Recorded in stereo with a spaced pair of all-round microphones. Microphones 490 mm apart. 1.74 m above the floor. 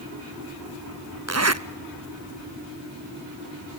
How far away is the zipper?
About 0.8 m.